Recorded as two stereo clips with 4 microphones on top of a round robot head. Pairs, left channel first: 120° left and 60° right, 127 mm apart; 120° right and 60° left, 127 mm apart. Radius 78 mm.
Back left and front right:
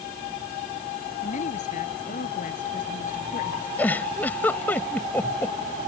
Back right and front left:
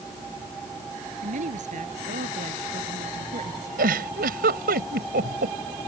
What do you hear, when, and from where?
1.2 s a woman speaking: 90° left; by 3.7 s 100° left
3.8 s a giggle: 45° left